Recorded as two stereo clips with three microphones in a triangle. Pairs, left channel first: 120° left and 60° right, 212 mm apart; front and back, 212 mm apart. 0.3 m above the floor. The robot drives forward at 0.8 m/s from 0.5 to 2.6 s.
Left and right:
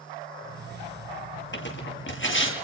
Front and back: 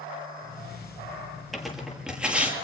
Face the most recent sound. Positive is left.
turn(degrees=95)